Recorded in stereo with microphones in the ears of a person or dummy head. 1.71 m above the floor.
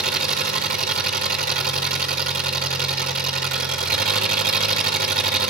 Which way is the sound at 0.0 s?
50° right (ahead or behind).